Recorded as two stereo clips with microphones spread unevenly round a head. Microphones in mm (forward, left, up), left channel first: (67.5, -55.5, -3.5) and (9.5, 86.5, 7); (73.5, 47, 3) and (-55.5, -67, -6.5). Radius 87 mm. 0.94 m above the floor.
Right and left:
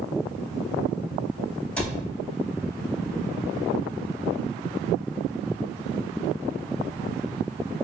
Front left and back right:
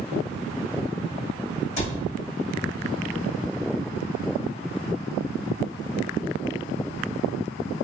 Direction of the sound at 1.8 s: 15° left.